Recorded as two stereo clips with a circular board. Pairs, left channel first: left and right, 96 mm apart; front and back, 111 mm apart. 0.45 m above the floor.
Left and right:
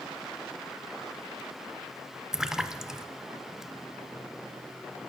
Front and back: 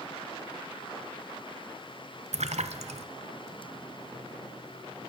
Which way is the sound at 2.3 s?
175° right.